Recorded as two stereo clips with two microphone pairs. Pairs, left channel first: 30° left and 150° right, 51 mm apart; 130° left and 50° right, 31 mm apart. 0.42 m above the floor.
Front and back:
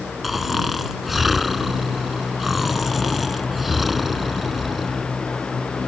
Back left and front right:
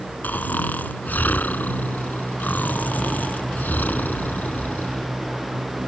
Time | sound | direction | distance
0.2 | snoring | 125° left | ?